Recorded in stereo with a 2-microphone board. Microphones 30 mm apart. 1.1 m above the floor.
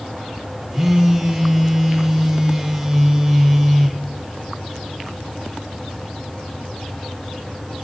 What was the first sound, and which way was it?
A phone buzzing, 15° right (ahead or behind).